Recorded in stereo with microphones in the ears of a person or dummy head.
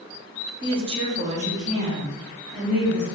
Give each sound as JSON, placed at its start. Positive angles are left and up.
{"t": 0.6, "sound": "a woman speaking", "side_deg": -25, "distance_m": 0.7}